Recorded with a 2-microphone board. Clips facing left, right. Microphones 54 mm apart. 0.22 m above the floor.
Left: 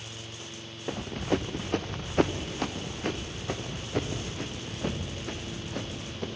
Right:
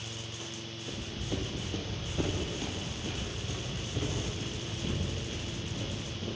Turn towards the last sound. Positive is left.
turn(degrees=65)  # may be behind; listen again after turning